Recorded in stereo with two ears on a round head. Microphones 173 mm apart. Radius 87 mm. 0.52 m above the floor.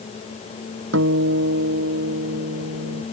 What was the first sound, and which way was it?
A guitar, 70° right (ahead or behind).